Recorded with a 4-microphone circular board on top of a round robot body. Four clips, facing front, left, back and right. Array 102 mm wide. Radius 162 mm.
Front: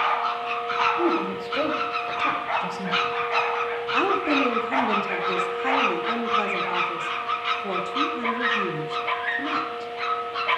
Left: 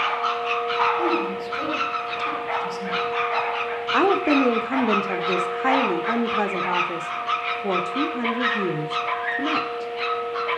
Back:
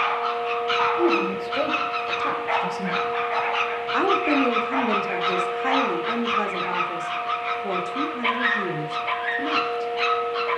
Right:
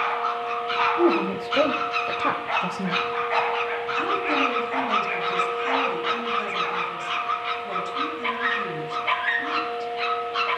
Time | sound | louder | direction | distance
1.0 | a woman speaking | right 2 dB, back 2 dB | 90° right | 4 m
3.9 | a woman speaking | left 8 dB, back 2 dB | 95° left | 3 m